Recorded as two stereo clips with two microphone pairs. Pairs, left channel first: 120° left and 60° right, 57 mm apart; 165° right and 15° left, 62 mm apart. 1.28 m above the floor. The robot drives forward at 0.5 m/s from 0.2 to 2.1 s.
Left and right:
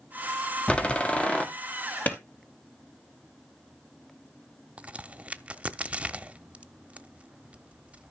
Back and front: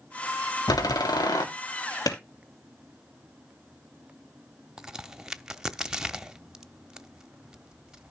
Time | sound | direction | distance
0.7 | a door slam | 170° right | 1.8 m
2.1 | a clap | straight behind | 2 m
4.8 | a crack | 40° right | 0.8 m